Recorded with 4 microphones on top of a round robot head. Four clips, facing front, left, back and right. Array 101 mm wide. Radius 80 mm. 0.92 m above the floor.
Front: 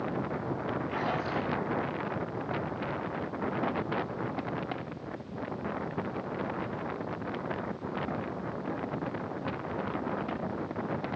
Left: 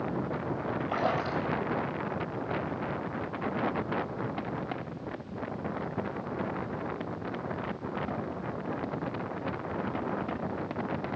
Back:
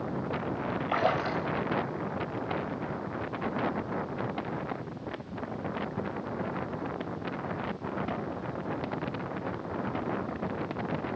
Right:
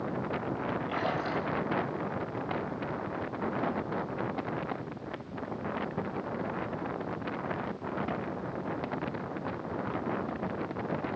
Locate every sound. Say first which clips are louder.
0.9 s a splash: left 4 dB, back 7 dB; 150° left, 3 m